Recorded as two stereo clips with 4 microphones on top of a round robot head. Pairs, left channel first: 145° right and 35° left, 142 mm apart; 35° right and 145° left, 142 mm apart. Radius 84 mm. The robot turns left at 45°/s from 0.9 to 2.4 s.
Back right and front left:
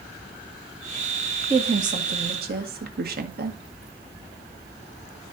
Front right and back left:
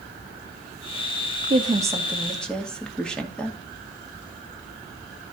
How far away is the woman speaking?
About 1.9 m.